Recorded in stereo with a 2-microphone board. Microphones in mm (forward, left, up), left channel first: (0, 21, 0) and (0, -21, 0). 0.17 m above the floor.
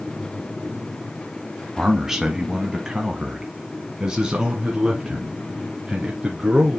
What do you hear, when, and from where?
1.8 s a man speaking: 5° right (ahead or behind), 1.3 m; by 6.8 s 15° right (ahead or behind), 3 m